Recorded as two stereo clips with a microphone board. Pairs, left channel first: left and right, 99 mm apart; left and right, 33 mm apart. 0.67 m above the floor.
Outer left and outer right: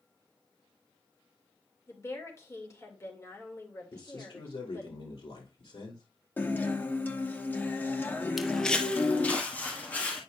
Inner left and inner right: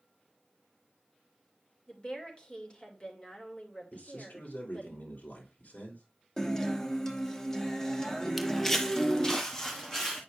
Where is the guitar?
20° left (ahead or behind), 1.0 m.